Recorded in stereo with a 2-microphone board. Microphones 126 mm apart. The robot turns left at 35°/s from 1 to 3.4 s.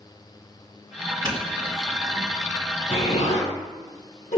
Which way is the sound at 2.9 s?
60° left (ahead or behind).